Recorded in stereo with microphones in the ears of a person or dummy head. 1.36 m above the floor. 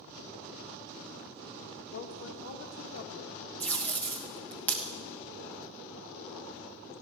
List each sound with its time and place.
1.9 s a woman speaking: 85° left, 1.3 m
3.6 s tape being pulled: 10° left (ahead or behind), 1.3 m